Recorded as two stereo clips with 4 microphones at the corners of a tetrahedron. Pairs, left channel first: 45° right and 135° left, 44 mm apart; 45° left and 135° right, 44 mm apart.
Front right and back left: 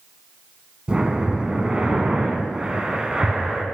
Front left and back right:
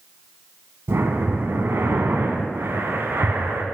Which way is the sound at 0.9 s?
155° right.